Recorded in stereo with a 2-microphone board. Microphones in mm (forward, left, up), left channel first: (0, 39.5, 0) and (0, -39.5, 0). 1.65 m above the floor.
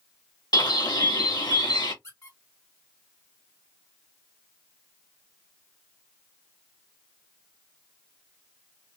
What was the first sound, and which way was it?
A bird, 60° left (ahead or behind).